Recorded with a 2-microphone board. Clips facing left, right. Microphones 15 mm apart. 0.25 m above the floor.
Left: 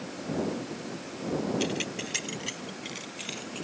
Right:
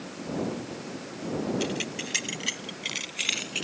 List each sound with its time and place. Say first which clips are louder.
1.6 s keys jangling: even; 5° left (ahead or behind); by 3.6 s 50° right (ahead or behind)